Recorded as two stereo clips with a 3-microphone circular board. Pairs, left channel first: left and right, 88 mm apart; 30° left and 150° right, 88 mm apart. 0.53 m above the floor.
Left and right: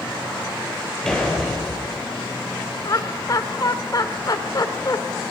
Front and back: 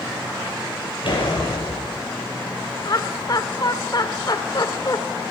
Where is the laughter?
55° left, 2 m.